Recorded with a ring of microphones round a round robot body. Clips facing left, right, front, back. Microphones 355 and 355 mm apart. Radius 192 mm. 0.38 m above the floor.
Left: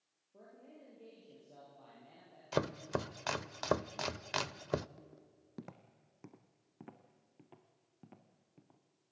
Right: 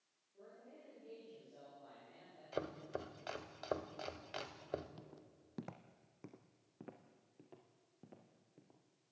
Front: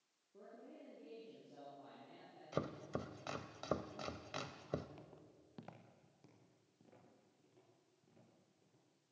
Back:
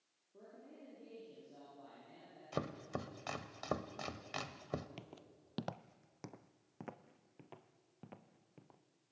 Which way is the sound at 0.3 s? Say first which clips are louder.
Left 2 dB, even; 85° left.